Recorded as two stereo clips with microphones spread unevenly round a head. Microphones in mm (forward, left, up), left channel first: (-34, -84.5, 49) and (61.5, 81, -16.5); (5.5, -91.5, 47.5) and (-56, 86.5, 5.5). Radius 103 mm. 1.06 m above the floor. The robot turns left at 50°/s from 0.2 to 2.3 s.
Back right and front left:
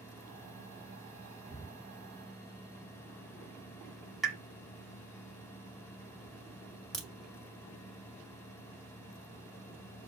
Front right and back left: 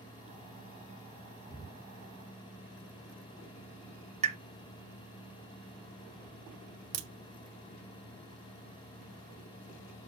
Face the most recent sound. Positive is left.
turn(degrees=160)